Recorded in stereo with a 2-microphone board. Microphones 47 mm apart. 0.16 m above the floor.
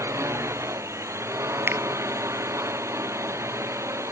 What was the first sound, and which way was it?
A drone, 80° right.